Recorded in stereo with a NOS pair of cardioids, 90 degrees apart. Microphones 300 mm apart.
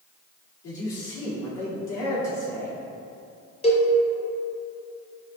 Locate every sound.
0.6 s a man speaking: 60° left, 2.0 m
3.6 s a cowbell: 20° left, 1.0 m